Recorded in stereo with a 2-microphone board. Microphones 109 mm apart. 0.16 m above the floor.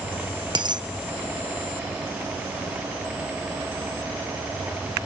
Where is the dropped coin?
45° right (ahead or behind), 0.8 m.